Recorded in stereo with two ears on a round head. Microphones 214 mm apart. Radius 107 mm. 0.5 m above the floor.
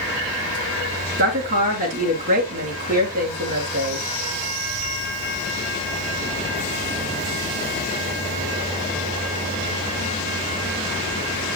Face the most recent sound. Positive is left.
turn(degrees=-40)  # may be behind; listen again after turning